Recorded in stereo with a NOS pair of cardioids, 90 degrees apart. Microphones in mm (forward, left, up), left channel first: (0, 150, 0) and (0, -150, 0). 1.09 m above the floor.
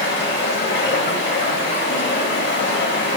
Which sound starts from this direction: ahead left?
Running water, at 0.0 s.